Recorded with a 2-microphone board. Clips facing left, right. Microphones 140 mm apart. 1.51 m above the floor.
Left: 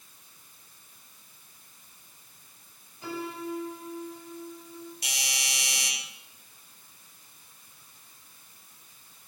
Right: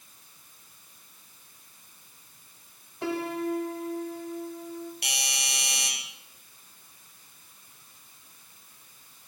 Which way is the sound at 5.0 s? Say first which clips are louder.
Right 2 dB; 65° right (ahead or behind).